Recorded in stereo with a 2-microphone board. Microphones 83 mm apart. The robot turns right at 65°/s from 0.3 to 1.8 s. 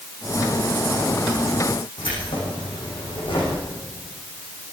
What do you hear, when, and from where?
2.0 s keys jangling: 80° left, 9 m